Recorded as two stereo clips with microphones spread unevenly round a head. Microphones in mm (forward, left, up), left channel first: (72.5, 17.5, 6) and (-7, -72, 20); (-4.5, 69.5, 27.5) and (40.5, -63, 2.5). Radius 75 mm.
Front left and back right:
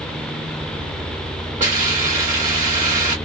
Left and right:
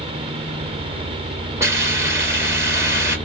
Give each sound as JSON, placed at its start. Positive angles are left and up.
{"t": 1.6, "sound": "a hiss", "azimuth_deg": -150, "distance_m": 1.3}